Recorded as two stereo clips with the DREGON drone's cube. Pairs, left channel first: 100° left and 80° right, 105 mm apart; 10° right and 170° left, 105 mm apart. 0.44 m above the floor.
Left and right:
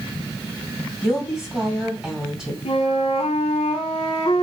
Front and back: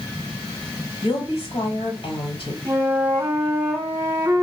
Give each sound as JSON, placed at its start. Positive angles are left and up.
{"t": 1.0, "sound": "a woman speaking", "azimuth_deg": 5, "distance_m": 1.9}
{"t": 2.6, "sound": "a flute", "azimuth_deg": 100, "distance_m": 0.8}